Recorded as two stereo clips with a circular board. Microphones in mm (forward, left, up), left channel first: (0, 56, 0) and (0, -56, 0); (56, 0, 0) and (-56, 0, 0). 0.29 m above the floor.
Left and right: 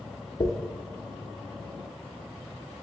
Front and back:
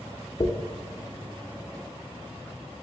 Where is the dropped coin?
50° left, 0.6 m.